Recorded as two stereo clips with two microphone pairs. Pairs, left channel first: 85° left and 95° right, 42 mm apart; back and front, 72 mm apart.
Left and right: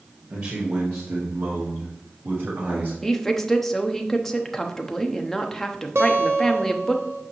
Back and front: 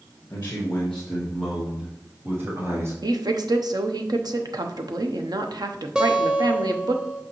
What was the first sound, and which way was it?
A man speaking, 130° right.